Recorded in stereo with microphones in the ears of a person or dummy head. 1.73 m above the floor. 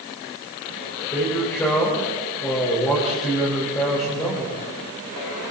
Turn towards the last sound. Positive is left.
turn(degrees=15)  # may be behind; listen again after turning